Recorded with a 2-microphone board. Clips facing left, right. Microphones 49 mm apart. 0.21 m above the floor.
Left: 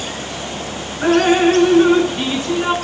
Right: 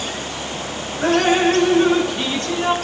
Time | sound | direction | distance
1.0 | dripping | 15° left (ahead or behind) | 2.5 m